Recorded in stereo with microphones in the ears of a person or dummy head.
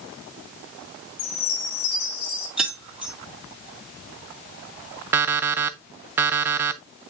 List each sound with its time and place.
1.2 s a chime: 45° left (ahead or behind), 1.7 m
2.6 s keys jangling: 5° right (ahead or behind), 1.8 m
5.1 s an alarm clock: 15° right (ahead or behind), 0.7 m